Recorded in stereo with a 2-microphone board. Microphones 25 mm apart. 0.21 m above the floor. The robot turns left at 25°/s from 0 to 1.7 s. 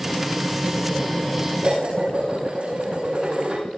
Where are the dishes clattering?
50° right (ahead or behind), 8.5 m.